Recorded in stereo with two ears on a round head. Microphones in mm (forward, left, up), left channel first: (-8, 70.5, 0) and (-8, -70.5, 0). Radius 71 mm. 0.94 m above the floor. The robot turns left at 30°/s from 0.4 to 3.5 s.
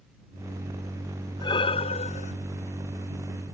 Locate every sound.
1.4 s breathing: 25° left (ahead or behind); by 2.3 s 50° left (ahead or behind)